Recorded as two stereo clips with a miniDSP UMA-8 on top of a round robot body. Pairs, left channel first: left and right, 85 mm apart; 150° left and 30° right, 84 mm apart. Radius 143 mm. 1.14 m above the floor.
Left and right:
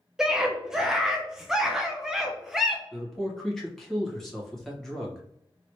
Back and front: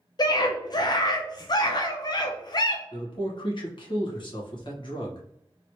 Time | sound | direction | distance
0.2 | a scream | 175° right | 0.5 m
2.9 | a man speaking | 175° left | 1.3 m